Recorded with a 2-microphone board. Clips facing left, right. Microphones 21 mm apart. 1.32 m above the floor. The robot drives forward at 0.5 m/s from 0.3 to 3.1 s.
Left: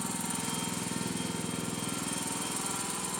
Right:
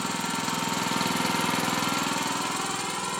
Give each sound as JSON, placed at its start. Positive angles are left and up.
{"t": 0.0, "sound": "an engine running", "side_deg": -40, "distance_m": 0.8}